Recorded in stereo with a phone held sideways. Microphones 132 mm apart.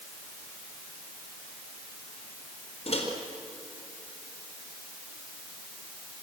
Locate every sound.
2.9 s a microwave: 55° left (ahead or behind), 4 m